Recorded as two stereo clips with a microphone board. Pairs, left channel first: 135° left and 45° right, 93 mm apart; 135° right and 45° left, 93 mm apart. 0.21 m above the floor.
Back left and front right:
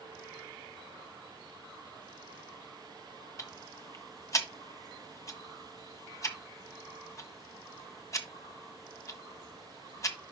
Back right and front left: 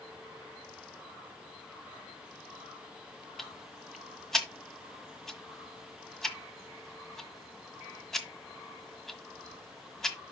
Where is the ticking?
140° left, 1.4 m.